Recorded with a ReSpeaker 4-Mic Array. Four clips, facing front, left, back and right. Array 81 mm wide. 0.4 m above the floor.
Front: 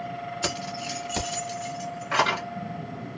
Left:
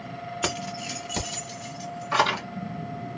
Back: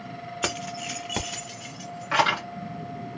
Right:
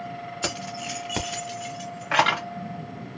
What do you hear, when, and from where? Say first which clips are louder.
0.4 s keys jangling: left 1 dB, back 3 dB; 150° left, 0.8 m; by 2.4 s 105° right, 1.6 m